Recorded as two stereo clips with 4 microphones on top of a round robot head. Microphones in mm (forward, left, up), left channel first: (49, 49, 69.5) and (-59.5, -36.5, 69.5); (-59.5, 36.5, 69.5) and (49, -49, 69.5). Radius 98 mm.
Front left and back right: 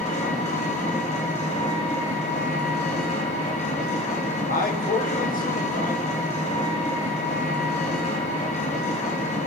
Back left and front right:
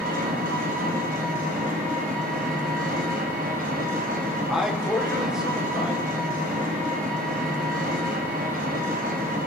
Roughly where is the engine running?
Ahead.